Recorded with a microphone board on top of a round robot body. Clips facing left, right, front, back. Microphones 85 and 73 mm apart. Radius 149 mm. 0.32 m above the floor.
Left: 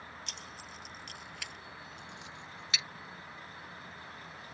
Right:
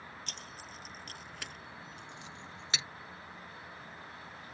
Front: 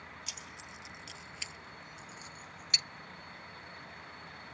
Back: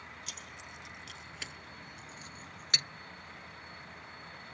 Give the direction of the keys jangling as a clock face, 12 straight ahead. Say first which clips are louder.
Even, even; 5 o'clock.